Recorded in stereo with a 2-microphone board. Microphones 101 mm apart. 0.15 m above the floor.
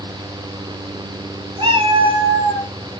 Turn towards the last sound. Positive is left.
turn(degrees=-50)  # may be behind; listen again after turning